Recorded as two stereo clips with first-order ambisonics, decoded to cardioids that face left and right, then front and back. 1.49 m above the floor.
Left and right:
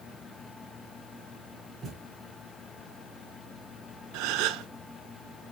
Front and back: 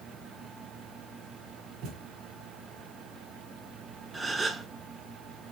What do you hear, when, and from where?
1.8 s a thud: 155° right, 3 m
4.1 s a gasp: 105° right, 0.9 m